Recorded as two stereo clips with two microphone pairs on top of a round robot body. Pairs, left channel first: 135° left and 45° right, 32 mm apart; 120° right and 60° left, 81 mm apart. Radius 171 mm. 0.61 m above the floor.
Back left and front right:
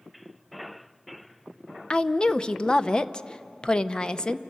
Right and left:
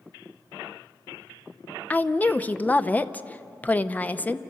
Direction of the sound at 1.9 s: 175° right.